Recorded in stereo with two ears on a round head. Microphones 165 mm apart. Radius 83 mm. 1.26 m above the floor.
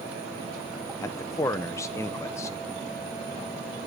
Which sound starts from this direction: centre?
A man speaking, at 1.0 s.